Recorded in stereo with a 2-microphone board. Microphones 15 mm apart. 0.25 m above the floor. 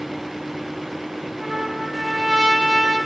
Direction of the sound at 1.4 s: 50° right (ahead or behind).